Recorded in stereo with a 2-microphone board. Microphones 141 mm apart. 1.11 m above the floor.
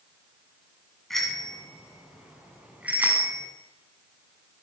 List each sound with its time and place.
1.1 s a bicycle bell: centre (ahead or behind), 7 m; by 3.5 s 15° right (ahead or behind), 7.5 m